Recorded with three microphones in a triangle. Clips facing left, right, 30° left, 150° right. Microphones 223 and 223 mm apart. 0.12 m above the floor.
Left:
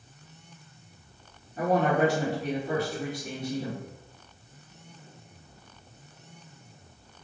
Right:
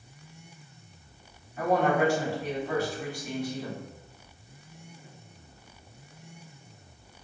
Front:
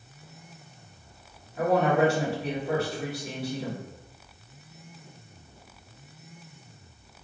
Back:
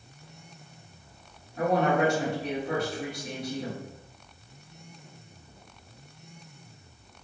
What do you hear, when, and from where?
1.6 s a woman speaking: 110° left, 1.9 m